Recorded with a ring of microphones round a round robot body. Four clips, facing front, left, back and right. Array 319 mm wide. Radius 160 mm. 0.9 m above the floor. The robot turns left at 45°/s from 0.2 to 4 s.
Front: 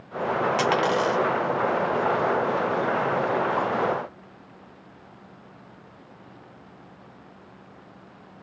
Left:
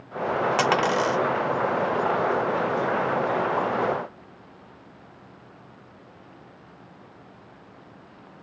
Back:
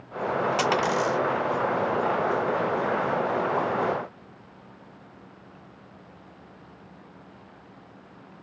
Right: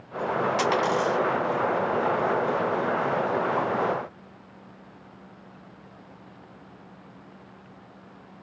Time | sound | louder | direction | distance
0.6 | a dropped coin | left 2 dB, front 2 dB | 90° left | 0.6 m